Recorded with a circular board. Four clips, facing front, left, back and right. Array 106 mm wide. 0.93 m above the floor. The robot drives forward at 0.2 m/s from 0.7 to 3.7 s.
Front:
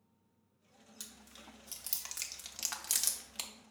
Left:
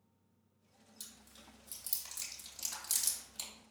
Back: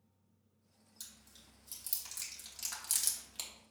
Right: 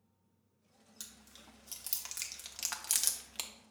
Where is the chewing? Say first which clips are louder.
Right 1 dB, front 8 dB; 40° right, 0.9 m; by 3.5 s 70° right, 0.6 m.